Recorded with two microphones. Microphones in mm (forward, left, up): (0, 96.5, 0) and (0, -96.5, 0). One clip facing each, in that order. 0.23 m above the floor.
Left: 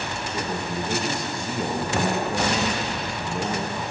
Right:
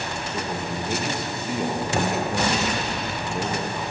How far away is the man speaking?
About 5.5 m.